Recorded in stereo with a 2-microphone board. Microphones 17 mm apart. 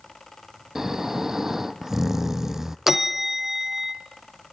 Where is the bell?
15° right (ahead or behind), 1.4 m.